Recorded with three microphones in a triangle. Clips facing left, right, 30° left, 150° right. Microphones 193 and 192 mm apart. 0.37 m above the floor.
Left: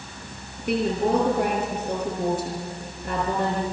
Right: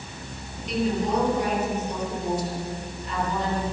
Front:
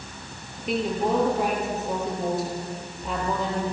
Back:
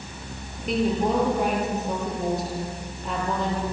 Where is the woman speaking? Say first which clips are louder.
Left 3 dB, back 1 dB; 120° left, 9 m.